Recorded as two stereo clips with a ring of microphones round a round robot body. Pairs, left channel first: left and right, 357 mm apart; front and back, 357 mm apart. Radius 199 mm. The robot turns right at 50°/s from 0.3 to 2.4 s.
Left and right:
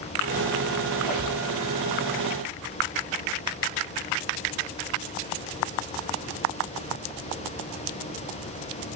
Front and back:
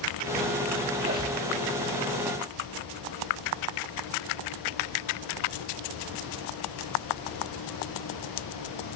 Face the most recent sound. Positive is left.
turn(degrees=-55)